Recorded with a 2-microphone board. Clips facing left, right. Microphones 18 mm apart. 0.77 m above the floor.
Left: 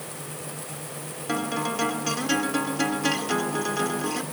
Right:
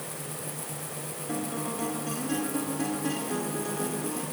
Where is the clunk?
I don't hear a clunk.